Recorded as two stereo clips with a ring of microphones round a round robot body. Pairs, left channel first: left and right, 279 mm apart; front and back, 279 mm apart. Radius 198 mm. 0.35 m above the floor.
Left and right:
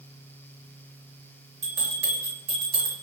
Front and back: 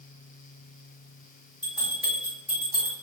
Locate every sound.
1.6 s a bell: 85° right, 1.9 m